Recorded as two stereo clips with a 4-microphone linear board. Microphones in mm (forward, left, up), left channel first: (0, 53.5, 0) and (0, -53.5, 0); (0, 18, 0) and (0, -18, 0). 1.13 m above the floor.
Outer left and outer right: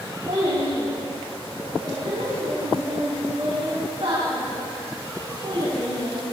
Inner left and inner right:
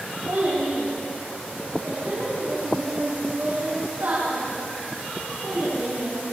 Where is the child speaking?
80° right, 5 m; by 6.2 s 60° right (ahead or behind), 8.5 m.